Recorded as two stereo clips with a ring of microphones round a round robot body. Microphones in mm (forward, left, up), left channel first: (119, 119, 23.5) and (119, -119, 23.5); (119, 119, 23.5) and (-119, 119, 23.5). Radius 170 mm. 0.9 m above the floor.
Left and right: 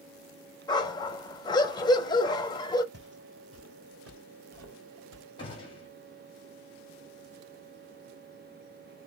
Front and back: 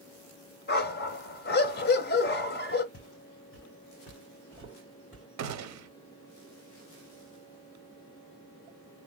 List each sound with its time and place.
0.7 s a dog barking: 25° left, 0.7 m
2.9 s footsteps: 50° right, 2 m; by 5.2 s 95° right, 2.5 m
5.4 s a gunshot: 165° left, 0.7 m